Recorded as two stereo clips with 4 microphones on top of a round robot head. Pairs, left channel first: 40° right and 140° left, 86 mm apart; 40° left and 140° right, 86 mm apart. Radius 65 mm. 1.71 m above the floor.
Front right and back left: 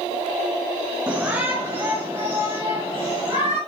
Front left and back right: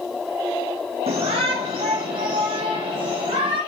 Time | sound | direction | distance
1.1 | a shout | 145° right | 0.9 m